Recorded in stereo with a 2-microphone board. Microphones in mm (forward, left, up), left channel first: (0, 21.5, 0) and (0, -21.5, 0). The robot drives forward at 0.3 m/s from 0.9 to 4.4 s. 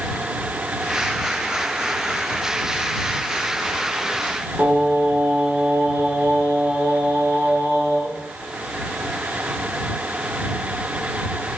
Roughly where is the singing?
Right.